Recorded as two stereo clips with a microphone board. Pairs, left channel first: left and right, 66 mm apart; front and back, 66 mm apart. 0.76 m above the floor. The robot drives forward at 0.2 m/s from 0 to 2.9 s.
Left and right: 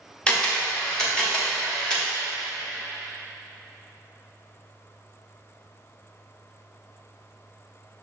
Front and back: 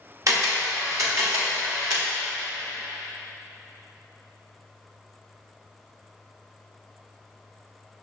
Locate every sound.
0.3 s a camera shutter: 165° left, 1.2 m; by 2.0 s 170° left, 1.5 m